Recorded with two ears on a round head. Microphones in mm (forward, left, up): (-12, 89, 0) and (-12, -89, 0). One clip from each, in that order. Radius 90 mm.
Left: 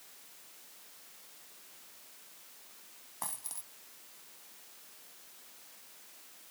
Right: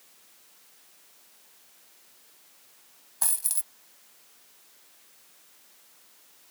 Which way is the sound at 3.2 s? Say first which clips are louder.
Right 10 dB; 70° right (ahead or behind).